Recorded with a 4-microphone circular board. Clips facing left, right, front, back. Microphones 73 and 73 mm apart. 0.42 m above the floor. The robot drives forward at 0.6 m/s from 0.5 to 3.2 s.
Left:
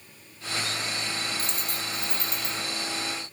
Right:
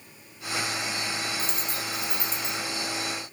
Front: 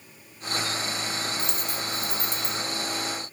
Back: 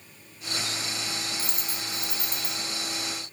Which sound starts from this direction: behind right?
A dropped coin, at 1.4 s.